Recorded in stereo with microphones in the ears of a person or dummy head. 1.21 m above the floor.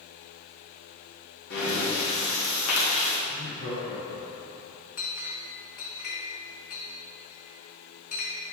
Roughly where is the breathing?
Left.